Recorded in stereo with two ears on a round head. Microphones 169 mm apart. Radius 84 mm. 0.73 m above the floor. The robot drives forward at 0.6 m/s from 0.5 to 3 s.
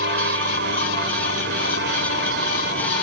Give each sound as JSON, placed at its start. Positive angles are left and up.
{"t": 0.0, "sound": "an aircraft", "side_deg": -60}